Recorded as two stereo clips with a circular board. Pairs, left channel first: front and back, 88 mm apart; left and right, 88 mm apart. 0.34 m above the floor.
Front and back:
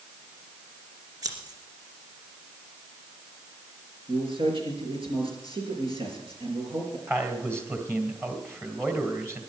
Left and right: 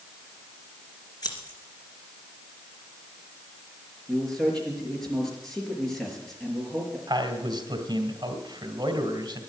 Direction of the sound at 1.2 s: 135° left.